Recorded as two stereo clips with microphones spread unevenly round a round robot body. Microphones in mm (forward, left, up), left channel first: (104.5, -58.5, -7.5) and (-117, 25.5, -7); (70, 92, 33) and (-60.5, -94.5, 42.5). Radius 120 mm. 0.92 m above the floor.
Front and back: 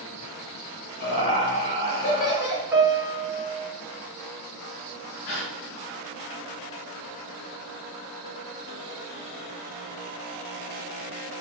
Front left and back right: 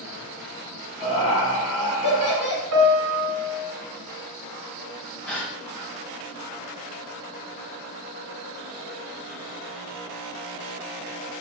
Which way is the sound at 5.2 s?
30° right.